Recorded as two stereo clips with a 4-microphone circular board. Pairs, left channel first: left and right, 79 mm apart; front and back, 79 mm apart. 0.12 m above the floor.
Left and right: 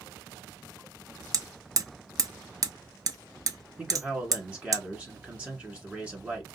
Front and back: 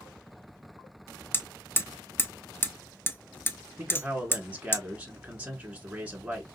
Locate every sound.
1.3 s hammering: 60° right, 0.6 m
3.8 s a man speaking: 135° right, 1.3 m